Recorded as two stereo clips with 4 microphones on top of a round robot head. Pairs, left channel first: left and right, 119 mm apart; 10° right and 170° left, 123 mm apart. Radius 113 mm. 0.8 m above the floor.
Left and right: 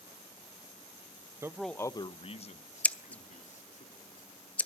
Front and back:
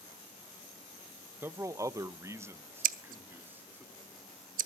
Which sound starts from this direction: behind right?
A man speaking, at 1.4 s.